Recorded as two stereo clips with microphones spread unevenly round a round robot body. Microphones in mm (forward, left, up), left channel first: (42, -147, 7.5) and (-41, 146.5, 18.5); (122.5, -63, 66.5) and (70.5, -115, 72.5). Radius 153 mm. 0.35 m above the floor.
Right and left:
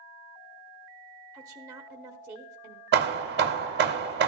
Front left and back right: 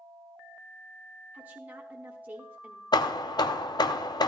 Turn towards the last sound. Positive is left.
turn(degrees=50)